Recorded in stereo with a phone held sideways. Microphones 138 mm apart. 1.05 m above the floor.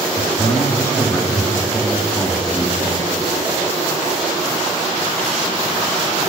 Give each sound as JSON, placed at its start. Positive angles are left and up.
{"t": 0.2, "sound": "a man speaking", "side_deg": 30, "distance_m": 2.5}